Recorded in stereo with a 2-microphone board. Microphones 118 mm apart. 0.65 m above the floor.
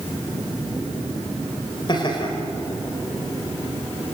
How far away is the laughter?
About 3 m.